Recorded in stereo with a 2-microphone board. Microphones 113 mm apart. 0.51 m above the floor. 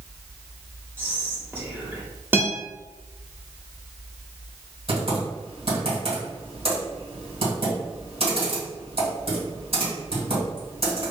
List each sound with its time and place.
1.0 s whispering: 20° right (ahead or behind), 1.1 m
2.3 s a guitar: 20° right (ahead or behind), 0.9 m
4.9 s typing on a keyboard: 55° right (ahead or behind), 2.0 m